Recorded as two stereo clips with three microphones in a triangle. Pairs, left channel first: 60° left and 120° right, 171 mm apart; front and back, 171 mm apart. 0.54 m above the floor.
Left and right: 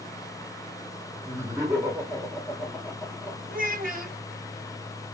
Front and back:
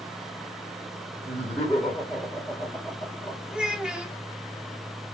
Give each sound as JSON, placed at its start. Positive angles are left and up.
{"t": 1.2, "sound": "laughter", "azimuth_deg": -80, "distance_m": 1.1}
{"t": 3.5, "sound": "a child speaking", "azimuth_deg": -95, "distance_m": 0.8}